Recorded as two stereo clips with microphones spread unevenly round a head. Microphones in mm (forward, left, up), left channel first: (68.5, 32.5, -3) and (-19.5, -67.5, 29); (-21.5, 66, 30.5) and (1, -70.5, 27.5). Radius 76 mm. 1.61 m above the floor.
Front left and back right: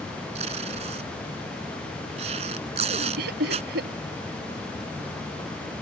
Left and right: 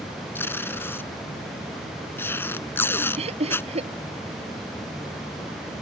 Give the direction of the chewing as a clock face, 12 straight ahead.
No chewing in this recording.